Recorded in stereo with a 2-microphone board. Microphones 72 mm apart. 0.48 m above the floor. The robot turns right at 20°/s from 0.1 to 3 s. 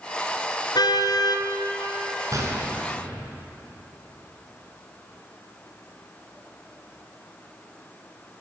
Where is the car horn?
80° left, 3 m; by 1.5 s 65° left (ahead or behind), 3 m.